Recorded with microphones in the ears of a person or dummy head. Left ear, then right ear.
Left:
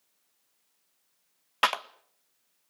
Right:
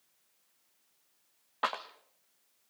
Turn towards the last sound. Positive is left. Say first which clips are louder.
# left 7 dB
turn(degrees=65)  # may be behind; listen again after turning